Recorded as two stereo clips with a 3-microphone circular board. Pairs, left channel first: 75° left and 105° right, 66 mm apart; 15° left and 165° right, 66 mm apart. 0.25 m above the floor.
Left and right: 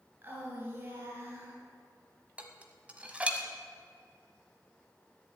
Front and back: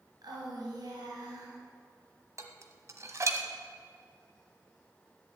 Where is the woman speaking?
160° right, 3.5 m.